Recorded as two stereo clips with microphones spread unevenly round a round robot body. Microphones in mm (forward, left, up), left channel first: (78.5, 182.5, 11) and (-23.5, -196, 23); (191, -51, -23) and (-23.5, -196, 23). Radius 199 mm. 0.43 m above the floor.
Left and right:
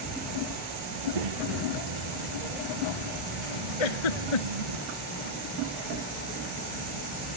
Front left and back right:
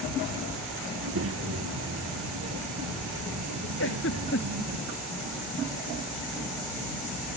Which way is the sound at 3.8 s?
95° left.